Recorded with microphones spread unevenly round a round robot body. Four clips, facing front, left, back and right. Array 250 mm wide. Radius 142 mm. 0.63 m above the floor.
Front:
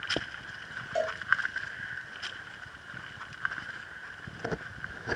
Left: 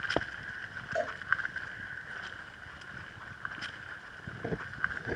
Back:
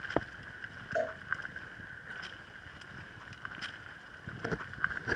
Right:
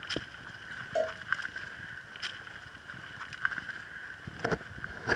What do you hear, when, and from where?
0.9 s a cowbell: 135° right, 1.2 m